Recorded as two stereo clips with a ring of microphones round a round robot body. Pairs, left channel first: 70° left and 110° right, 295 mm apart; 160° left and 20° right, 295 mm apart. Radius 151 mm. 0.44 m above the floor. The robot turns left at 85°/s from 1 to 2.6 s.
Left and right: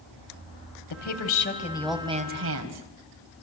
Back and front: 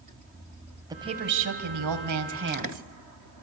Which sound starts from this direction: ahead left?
A woman speaking, at 0.9 s.